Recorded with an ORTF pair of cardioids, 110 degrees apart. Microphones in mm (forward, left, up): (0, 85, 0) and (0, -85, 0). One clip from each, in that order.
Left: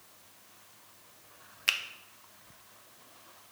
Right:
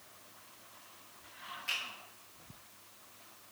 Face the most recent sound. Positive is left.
turn(degrees=70)